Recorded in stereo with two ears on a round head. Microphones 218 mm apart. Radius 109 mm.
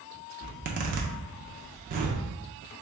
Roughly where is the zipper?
Right.